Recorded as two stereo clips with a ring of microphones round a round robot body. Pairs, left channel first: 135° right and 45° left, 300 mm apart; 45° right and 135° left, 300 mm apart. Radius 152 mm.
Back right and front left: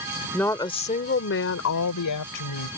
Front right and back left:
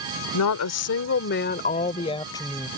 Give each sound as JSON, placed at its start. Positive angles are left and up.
{"t": 0.3, "sound": "a woman speaking", "azimuth_deg": -50}